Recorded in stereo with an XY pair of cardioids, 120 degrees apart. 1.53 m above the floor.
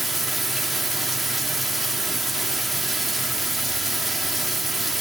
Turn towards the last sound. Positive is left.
turn(degrees=-10)